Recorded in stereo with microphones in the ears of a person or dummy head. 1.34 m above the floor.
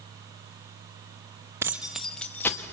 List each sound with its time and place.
1.6 s keys jangling: 15° right (ahead or behind), 1.0 m; by 2.6 s 15° left (ahead or behind), 1.5 m